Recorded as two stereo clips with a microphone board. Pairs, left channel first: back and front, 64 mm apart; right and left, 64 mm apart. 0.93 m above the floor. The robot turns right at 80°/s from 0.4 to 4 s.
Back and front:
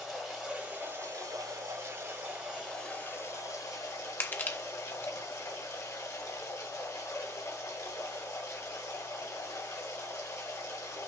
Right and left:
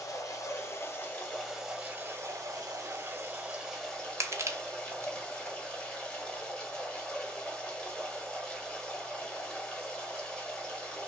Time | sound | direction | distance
0.0 | running water | 90° right | 1.5 m
4.2 | crushing | 125° left | 0.7 m